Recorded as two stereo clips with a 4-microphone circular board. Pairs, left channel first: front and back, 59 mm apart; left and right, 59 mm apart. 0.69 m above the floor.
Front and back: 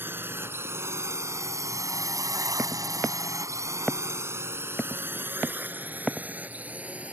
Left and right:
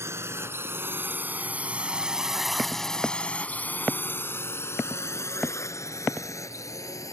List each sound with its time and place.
0.0 s a drone: 130° right; by 7.1 s 115° left